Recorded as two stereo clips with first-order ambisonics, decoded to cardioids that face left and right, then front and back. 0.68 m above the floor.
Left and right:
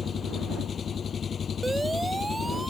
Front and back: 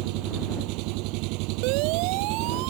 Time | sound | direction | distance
0.0 | an engine running | 160° left | ?
1.6 | a siren | 170° right | ?